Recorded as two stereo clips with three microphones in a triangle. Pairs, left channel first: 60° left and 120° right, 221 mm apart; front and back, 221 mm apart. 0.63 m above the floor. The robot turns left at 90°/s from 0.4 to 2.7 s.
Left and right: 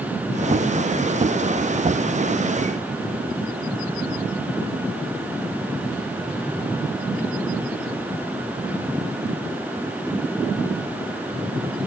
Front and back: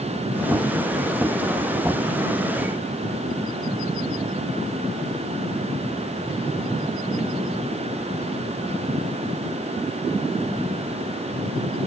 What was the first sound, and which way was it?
Only background noise.